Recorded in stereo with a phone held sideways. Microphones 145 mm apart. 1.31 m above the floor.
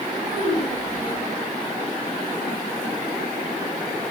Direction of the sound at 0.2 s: 45° right (ahead or behind).